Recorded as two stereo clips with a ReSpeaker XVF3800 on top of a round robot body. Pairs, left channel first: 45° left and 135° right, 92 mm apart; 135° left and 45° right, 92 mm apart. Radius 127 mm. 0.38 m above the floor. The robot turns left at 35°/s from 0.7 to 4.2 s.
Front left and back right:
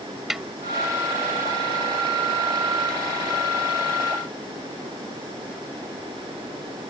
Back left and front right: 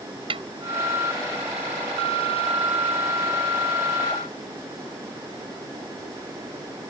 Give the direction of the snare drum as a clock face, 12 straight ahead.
2 o'clock.